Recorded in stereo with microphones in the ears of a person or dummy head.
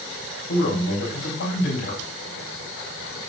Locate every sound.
0.5 s a man speaking: 55° left (ahead or behind), 4 m